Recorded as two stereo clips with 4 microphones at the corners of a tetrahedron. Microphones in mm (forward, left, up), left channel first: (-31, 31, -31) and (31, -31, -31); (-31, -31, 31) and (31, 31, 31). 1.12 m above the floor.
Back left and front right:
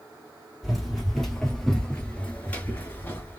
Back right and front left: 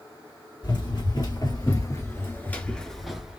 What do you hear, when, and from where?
0.6 s running footsteps: 135° right, 2 m; by 3.4 s 105° left, 1.2 m